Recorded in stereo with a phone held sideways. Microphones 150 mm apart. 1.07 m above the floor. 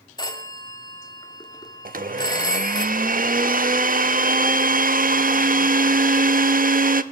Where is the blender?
75° right (ahead or behind), 0.8 m.